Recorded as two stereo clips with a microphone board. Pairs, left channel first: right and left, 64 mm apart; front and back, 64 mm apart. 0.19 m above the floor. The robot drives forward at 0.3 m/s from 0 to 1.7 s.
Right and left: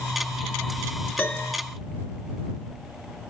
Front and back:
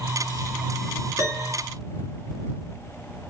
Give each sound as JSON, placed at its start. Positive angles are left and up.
{"t": 1.2, "sound": "a piano", "azimuth_deg": -155, "distance_m": 1.8}